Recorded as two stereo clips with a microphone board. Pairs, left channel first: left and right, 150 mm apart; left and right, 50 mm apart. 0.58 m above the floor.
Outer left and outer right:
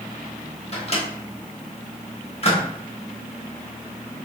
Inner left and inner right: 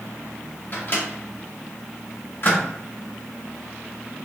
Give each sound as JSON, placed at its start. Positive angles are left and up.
{"t": 0.7, "sound": "a microwave", "side_deg": 45, "distance_m": 0.7}